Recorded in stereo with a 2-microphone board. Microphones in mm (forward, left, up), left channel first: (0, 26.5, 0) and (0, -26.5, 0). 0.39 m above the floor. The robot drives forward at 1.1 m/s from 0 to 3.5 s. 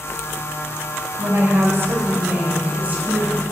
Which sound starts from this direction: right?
A woman speaking, at 1.2 s.